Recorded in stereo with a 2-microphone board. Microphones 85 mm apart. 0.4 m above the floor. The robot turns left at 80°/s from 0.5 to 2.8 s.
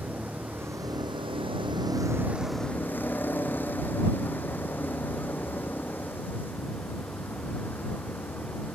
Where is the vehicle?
20° right; by 8.8 s 160° left.